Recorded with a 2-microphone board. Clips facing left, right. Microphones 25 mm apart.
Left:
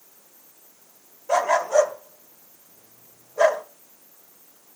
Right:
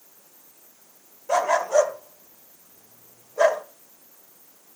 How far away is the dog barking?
About 1.4 m.